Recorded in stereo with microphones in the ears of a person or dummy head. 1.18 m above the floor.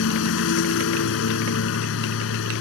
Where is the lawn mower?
75° left (ahead or behind).